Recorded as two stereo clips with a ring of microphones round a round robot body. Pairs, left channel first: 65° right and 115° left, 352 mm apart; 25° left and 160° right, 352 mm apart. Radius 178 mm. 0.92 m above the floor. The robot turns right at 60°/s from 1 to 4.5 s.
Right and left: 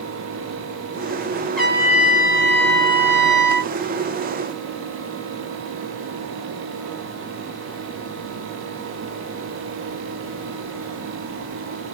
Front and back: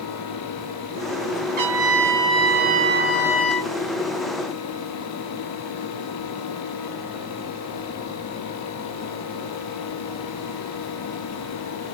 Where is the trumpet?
160° right, 1.4 m; by 3.7 s 30° right, 1.4 m.